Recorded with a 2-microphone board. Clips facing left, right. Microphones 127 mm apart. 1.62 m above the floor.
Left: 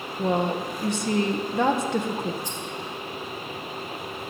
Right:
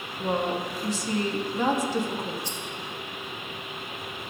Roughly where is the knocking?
No knocking in this recording.